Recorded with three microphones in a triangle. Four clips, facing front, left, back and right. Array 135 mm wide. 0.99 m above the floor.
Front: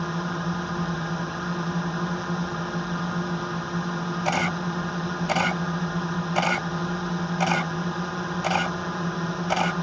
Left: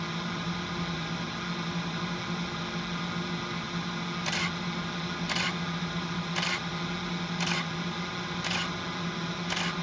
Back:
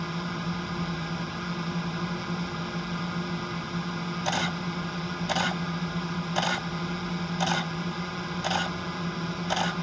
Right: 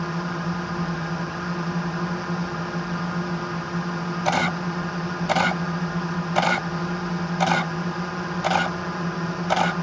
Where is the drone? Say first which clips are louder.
Right 7 dB, front 4 dB; 50° right.